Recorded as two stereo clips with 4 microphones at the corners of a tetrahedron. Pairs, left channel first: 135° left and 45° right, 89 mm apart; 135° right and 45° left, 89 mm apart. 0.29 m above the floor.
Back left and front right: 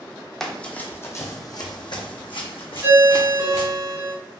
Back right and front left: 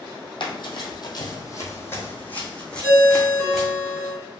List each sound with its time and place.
0.4 s running footsteps: 140° right, 0.8 m; by 3.7 s 135° left, 1.6 m
2.8 s a ringtone: straight ahead, 1.3 m